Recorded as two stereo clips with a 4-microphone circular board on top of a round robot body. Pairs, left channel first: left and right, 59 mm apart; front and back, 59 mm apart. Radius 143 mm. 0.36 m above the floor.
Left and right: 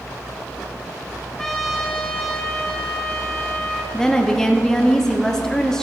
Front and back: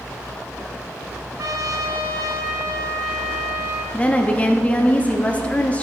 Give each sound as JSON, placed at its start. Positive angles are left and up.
{"t": 1.4, "sound": "a trumpet", "azimuth_deg": 175, "distance_m": 1.4}
{"t": 3.9, "sound": "a woman speaking", "azimuth_deg": 20, "distance_m": 1.0}